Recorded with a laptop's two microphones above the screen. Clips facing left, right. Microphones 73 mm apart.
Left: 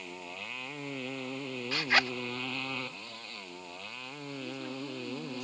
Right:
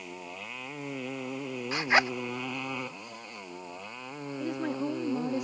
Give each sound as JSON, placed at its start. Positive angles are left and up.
{"t": 0.0, "sound": "a motorcycle", "side_deg": -5}
{"t": 1.7, "sound": "a zipper", "side_deg": -20}
{"t": 4.4, "sound": "a woman speaking", "side_deg": -65}